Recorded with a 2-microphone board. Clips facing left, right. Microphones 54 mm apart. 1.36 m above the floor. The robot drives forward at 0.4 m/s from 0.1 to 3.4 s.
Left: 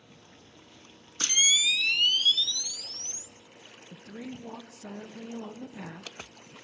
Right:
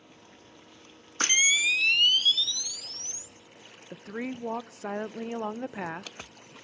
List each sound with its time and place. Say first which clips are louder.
1.2 s a camera shutter: right 3 dB; 45° right (ahead or behind), 0.8 m; by 3.3 s 20° right (ahead or behind), 1.5 m
3.9 s a woman speaking: right 6 dB; 60° right (ahead or behind), 0.6 m